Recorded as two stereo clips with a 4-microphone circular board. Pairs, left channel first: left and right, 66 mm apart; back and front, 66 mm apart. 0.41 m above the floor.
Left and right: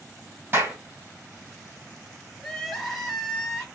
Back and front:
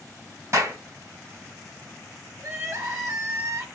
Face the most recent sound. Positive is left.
turn(degrees=5)